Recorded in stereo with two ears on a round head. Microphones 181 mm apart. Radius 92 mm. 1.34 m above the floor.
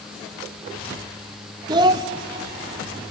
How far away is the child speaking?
About 0.8 m.